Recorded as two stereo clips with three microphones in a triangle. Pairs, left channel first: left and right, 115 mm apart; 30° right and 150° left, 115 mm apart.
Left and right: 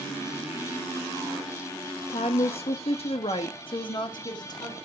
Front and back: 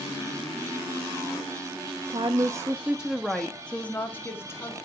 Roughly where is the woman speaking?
Behind left.